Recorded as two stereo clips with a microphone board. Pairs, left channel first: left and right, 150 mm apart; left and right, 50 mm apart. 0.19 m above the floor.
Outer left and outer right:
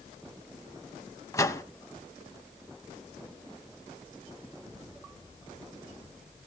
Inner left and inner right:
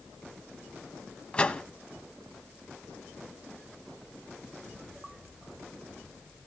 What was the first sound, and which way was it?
A microwave, 20° left (ahead or behind).